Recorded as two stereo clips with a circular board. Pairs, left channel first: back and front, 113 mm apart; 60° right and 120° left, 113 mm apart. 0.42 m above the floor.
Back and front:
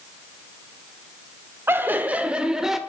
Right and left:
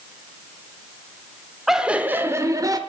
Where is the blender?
No blender in this recording.